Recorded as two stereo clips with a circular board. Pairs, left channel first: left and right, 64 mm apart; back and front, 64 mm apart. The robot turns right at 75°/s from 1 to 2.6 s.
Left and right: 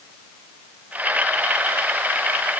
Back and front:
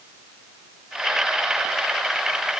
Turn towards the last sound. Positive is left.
No sound to turn to.